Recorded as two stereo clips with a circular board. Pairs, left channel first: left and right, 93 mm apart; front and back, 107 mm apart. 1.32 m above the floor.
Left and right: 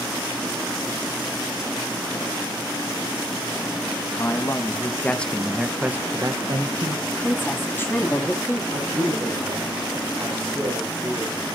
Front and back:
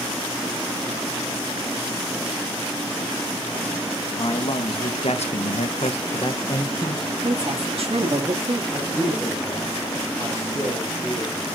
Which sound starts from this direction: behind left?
A woman speaking, at 7.1 s.